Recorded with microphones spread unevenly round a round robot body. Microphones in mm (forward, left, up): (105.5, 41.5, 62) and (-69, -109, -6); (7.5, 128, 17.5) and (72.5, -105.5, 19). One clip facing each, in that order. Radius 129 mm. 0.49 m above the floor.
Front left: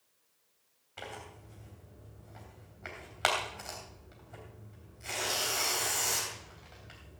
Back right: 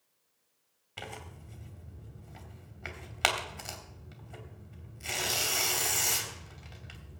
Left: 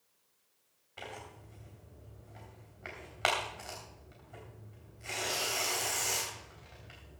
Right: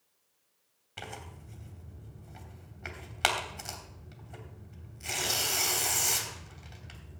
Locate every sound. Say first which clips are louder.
1.0 s tearing paper: even, right 1 dB; 120° right, 2.5 m